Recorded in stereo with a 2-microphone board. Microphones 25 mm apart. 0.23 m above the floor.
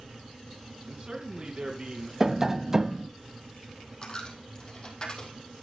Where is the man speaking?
35° right (ahead or behind), 2 m.